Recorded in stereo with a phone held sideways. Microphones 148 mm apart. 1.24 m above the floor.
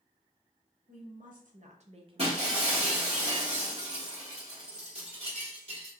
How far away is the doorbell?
No doorbell in this recording.